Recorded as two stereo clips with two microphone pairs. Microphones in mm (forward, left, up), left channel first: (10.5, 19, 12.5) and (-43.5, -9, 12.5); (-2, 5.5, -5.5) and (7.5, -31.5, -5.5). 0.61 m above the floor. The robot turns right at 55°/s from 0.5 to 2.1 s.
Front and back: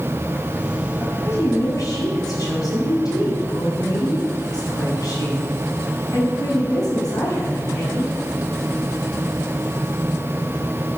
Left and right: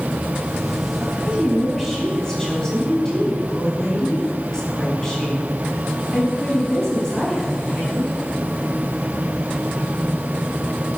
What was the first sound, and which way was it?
A woman speaking, 25° right.